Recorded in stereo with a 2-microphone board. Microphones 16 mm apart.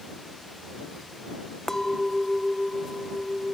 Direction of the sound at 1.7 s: 30° left (ahead or behind).